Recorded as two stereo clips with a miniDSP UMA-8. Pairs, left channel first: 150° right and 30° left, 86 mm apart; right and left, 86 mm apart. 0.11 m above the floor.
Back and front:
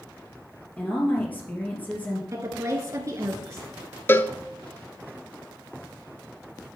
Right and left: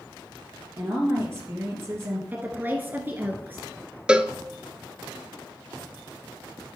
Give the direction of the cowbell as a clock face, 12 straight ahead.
7 o'clock.